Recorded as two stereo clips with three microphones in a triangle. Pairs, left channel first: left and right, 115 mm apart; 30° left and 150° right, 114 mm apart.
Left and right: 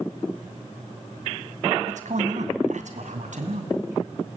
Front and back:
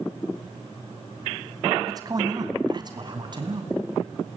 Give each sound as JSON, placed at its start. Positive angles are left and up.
{"t": 1.9, "sound": "a man speaking", "azimuth_deg": -90, "distance_m": 3.0}